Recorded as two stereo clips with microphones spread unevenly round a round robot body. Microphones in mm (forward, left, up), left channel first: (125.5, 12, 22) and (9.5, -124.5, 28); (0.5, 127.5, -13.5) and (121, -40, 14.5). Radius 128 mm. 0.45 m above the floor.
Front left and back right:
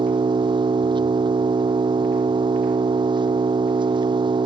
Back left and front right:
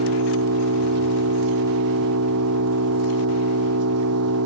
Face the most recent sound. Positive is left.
turn(degrees=-65)